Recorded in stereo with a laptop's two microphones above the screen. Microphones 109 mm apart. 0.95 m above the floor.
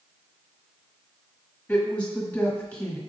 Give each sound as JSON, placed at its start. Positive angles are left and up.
{"t": 1.7, "sound": "a woman speaking", "side_deg": 15, "distance_m": 1.4}